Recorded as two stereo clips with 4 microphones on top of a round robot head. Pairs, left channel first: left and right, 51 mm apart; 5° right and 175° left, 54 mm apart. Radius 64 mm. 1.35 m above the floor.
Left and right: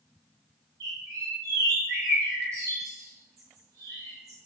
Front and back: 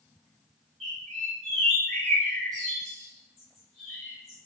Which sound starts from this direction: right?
A bird, at 0.8 s.